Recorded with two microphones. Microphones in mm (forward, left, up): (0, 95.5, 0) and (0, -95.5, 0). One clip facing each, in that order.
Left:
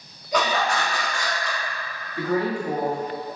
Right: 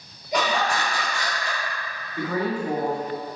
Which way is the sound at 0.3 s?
5° right (ahead or behind).